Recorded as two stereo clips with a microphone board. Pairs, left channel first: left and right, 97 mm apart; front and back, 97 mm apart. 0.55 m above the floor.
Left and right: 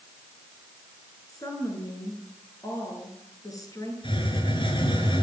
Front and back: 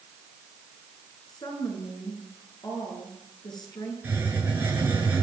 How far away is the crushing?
No crushing in this recording.